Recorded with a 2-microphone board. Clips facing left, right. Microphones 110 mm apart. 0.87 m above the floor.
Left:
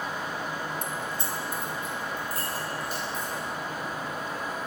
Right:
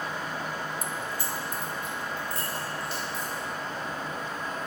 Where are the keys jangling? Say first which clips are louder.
Left 1 dB; 5° right (ahead or behind), 0.5 m; by 3.4 s 50° left (ahead or behind), 4 m.